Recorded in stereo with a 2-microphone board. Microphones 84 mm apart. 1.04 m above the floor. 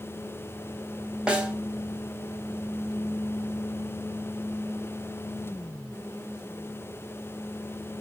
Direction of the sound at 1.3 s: 10° right (ahead or behind).